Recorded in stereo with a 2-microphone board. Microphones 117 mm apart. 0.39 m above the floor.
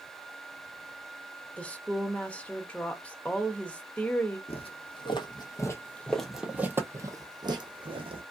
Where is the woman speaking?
10° left (ahead or behind), 0.8 m.